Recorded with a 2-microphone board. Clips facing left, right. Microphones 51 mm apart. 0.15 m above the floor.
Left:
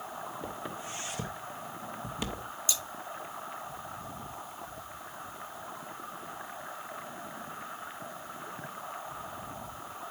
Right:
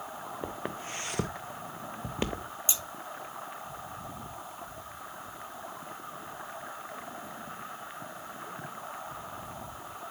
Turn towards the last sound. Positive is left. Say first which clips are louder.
# left 1 dB
turn(degrees=-30)  # may be behind; listen again after turning